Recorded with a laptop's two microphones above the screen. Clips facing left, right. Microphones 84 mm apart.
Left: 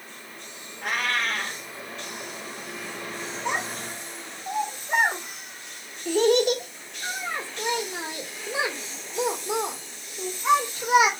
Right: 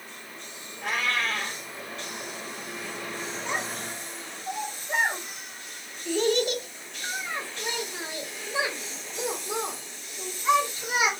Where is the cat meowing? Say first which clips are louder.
Left 1 dB; 65° left (ahead or behind), 1.9 m.